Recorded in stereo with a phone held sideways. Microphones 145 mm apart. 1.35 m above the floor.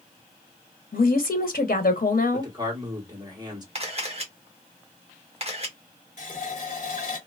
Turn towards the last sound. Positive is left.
turn(degrees=50)  # may be behind; listen again after turning